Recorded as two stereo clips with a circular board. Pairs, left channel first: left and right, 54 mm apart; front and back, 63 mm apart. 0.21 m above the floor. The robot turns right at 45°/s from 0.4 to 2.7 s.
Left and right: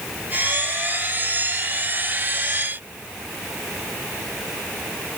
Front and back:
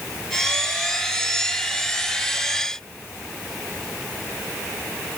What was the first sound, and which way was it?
Only background noise.